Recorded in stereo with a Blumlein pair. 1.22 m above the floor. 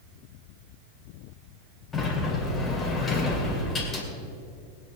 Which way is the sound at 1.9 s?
15° left.